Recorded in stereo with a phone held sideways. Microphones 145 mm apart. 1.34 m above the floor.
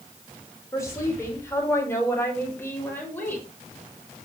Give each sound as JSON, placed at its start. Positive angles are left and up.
{"t": 0.7, "sound": "a woman speaking", "side_deg": 20, "distance_m": 5.5}